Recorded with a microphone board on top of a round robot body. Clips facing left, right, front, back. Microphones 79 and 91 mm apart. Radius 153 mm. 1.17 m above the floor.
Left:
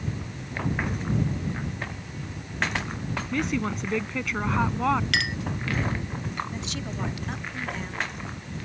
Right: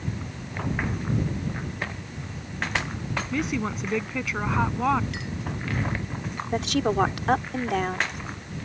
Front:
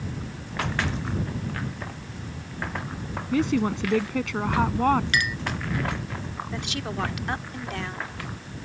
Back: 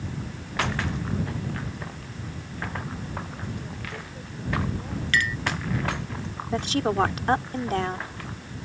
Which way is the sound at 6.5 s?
125° right.